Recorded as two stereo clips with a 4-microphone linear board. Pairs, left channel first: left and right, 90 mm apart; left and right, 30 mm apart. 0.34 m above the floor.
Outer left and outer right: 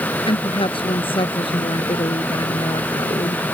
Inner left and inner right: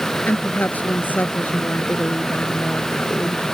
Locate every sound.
0.3 s a woman speaking: 80° left